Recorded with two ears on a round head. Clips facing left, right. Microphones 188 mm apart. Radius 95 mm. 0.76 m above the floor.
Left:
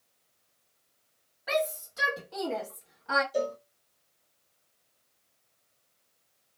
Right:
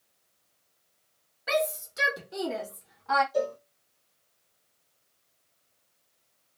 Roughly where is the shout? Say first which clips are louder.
Right 2 dB; right.